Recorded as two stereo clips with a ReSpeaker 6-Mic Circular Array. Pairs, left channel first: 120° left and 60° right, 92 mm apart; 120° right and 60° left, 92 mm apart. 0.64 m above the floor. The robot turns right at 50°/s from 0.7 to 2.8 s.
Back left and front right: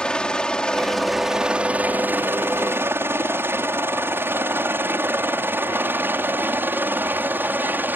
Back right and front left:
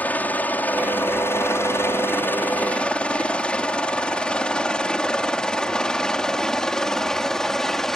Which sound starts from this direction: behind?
A helicopter, at 0.0 s.